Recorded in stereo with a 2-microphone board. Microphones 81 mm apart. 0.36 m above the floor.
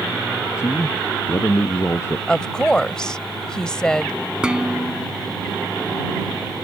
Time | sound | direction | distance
0.6 | a man speaking | 35° left (ahead or behind) | ?
2.3 | a woman speaking | 10° left (ahead or behind) | ?
4.4 | dishes clattering | 10° right (ahead or behind) | ?